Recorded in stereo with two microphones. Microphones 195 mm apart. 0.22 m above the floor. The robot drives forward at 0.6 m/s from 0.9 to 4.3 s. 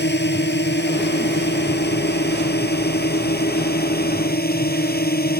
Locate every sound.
0.0 s a drone: 65° left (ahead or behind); by 5.4 s 55° left (ahead or behind)